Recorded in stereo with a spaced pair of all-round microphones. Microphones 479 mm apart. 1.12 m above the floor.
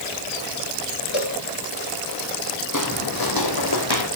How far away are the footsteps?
About 1.9 m.